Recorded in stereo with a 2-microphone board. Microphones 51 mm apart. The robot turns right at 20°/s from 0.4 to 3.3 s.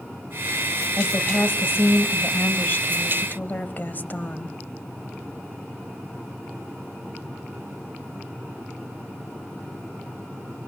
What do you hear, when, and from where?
1.0 s a woman speaking: 75° left, 1.9 m; by 4.6 s 125° left, 1.9 m